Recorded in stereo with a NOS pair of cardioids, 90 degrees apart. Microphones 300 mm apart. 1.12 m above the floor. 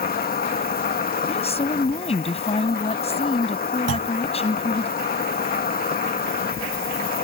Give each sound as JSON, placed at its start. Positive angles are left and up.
{"t": 0.0, "sound": "an insect", "azimuth_deg": 30}
{"t": 1.3, "sound": "a woman speaking", "azimuth_deg": 20}
{"t": 3.9, "sound": "a clunk", "azimuth_deg": -50}